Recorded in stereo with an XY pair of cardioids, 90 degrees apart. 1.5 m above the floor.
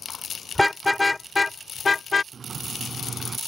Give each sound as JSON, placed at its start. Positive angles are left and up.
{"t": 0.6, "sound": "a car horn", "azimuth_deg": 5}
{"t": 2.3, "sound": "a sliding door", "azimuth_deg": -45}